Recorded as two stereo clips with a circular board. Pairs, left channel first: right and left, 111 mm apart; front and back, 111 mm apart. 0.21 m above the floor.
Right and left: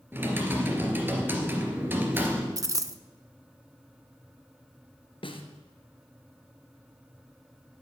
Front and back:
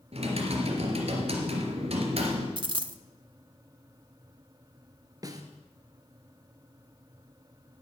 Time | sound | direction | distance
0.1 | typing on a keyboard | 160° left | 2.5 m
2.6 | a dropped coin | 145° left | 0.6 m
5.2 | a snare drum | 125° right | 1.5 m